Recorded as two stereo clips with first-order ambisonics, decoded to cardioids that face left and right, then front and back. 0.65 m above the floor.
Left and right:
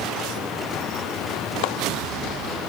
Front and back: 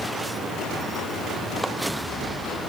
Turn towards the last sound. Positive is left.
turn(degrees=90)